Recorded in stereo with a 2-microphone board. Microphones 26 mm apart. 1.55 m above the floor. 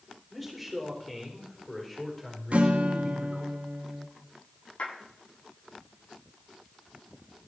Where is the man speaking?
Centre (ahead or behind), 5 m; by 3.5 s 20° left (ahead or behind), 5 m.